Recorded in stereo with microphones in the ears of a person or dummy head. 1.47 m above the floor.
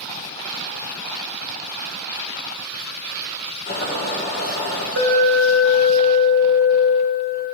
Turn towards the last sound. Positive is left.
turn(degrees=-65)  # may be behind; listen again after turning